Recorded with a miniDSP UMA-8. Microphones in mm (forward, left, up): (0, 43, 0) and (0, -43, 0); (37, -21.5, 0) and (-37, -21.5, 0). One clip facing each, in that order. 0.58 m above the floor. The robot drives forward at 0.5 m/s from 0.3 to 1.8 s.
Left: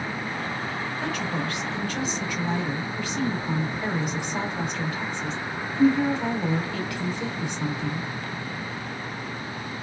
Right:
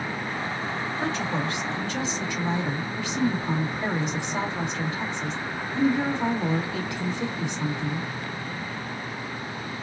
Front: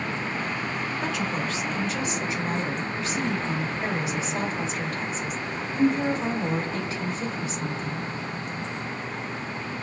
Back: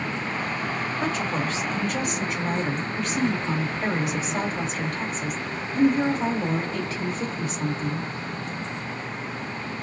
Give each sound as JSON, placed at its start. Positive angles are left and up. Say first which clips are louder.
{"t": 1.0, "sound": "a woman speaking", "louder": "right 2 dB, back 3 dB", "azimuth_deg": -145, "distance_m": 1.5}